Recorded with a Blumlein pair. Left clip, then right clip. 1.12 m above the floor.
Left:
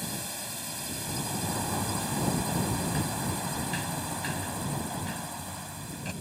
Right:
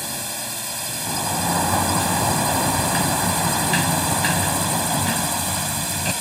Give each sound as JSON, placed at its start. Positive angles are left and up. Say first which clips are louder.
{"t": 0.0, "sound": "a drone", "louder": "right 8 dB", "azimuth_deg": -70}
{"t": 1.1, "sound": "a sliding door", "louder": "right 12 dB", "azimuth_deg": -60}